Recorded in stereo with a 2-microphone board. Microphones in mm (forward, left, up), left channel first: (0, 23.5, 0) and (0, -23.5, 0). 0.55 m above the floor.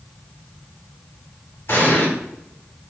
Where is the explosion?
55° left (ahead or behind), 2.0 m.